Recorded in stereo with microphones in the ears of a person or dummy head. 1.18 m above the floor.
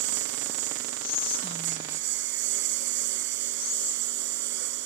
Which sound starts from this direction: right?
A lawn mower, at 0.0 s.